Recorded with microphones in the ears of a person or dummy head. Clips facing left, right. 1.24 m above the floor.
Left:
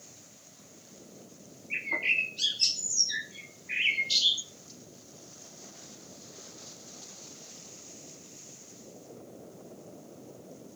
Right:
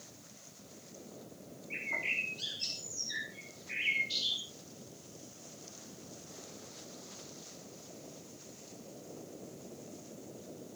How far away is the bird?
About 2.5 m.